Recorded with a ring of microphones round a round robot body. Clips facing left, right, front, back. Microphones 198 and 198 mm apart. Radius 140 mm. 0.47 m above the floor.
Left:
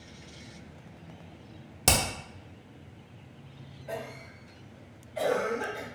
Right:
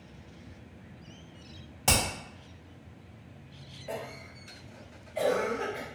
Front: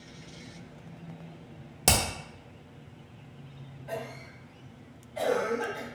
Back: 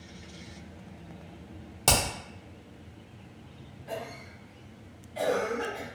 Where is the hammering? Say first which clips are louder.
Left 1 dB, even; 75° left, 0.7 m.